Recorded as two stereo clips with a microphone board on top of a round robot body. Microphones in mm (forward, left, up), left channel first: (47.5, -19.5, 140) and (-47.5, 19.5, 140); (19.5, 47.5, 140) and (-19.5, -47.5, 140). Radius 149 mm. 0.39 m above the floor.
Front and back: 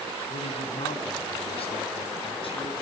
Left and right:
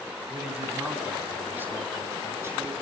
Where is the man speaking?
30° right, 4 m; by 2.7 s 50° right, 6 m.